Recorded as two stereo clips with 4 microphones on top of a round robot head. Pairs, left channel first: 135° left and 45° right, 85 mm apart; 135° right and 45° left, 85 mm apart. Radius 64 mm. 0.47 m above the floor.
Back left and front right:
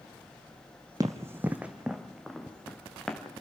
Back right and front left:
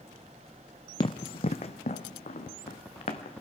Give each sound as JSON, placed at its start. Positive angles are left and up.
{"t": 1.0, "sound": "running footsteps", "azimuth_deg": -100, "distance_m": 0.9}